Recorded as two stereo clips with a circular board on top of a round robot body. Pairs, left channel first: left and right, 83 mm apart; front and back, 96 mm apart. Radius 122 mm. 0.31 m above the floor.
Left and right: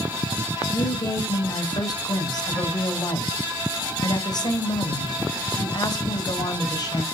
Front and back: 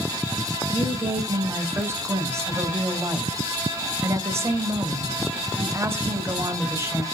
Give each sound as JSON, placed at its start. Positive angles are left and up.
{"t": 0.7, "sound": "a woman speaking", "azimuth_deg": 120, "distance_m": 3.0}